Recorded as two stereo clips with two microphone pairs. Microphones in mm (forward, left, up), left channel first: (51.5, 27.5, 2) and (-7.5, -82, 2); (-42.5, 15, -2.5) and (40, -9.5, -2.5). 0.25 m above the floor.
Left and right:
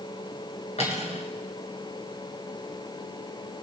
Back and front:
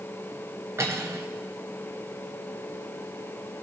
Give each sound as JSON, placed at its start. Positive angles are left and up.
{"t": 0.8, "sound": "cutlery clinking", "azimuth_deg": 40, "distance_m": 1.7}